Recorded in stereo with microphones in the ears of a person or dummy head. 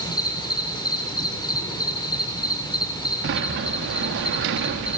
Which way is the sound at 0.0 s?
20° left (ahead or behind).